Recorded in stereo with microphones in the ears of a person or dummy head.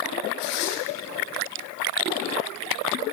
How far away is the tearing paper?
About 1.7 m.